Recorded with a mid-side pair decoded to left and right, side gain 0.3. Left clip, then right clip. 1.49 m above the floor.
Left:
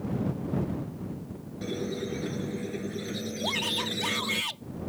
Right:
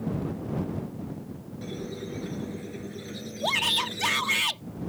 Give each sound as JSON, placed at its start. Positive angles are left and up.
{"t": 1.6, "sound": "a squeak", "azimuth_deg": 50}
{"t": 3.4, "sound": "a shout", "azimuth_deg": -55}